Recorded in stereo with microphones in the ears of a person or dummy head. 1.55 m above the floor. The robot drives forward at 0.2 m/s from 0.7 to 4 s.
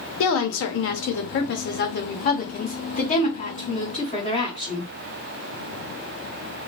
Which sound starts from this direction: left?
A woman speaking, at 0.2 s.